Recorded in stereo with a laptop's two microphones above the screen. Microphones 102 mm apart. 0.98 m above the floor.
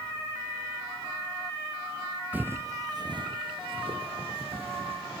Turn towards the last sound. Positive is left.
turn(degrees=-75)  # may be behind; listen again after turning